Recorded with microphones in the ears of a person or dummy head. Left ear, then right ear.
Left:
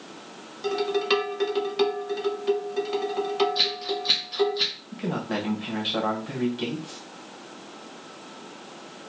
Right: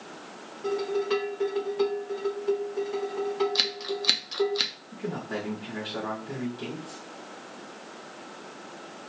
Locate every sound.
0.6 s dishes clattering: 40° left (ahead or behind), 1.3 m
3.5 s scissors: 50° right (ahead or behind), 0.5 m
4.9 s a man speaking: 30° left (ahead or behind), 1.5 m